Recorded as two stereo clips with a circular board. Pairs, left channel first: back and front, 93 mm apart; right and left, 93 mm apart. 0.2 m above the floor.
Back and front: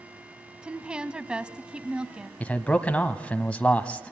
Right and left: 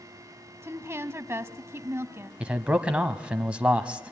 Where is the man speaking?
140° left, 1.0 m.